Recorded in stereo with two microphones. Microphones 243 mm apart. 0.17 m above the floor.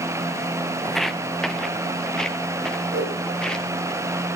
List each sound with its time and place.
0.8 s footsteps: centre (ahead or behind), 0.8 m; by 3.9 s 5° left (ahead or behind), 2.5 m
2.9 s a whoosh: 65° right (ahead or behind), 8.5 m